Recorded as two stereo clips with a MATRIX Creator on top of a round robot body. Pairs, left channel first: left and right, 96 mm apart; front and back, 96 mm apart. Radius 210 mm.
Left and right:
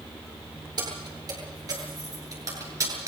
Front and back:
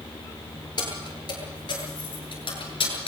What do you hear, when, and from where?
0.8 s keys jangling: 45° right, 9.5 m; by 3.1 s 30° right, 8 m